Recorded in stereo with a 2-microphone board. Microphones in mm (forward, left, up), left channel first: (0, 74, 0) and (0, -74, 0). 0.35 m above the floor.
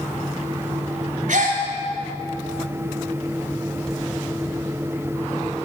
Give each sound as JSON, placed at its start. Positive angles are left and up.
{"t": 1.3, "sound": "a gasp", "side_deg": -65, "distance_m": 3.5}